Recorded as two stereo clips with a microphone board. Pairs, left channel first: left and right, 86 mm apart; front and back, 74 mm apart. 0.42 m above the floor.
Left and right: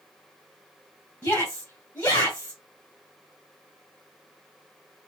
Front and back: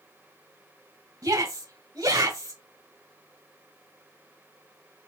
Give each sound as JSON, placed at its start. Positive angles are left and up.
{"t": 1.2, "sound": "a shout", "azimuth_deg": 160, "distance_m": 2.5}